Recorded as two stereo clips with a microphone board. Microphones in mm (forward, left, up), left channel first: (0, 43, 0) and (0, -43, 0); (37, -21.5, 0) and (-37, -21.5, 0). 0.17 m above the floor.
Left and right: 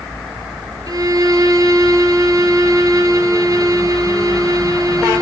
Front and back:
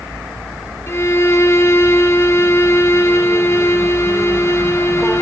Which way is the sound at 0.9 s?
50° right.